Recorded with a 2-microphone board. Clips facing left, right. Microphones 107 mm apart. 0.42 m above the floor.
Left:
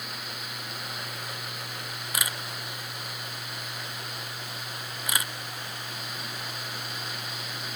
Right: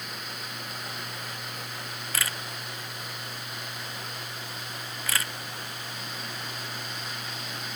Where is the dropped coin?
No dropped coin in this recording.